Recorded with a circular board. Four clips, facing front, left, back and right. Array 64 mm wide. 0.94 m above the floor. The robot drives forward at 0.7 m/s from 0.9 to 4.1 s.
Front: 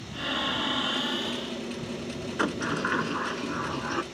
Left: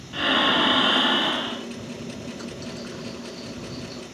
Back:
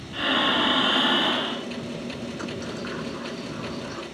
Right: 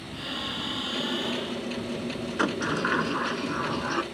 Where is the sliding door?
55° right; by 4.0 s 65° right.